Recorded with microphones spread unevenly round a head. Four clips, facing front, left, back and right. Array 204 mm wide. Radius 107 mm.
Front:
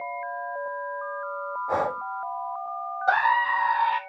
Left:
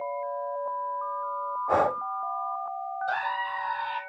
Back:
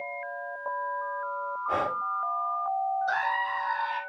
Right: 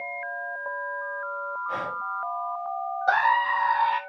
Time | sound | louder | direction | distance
1.7 | breathing | left 11 dB, front 3 dB | 75° left | 0.6 m
3.1 | a scream | right 10 dB, front 6 dB | 45° right | 0.7 m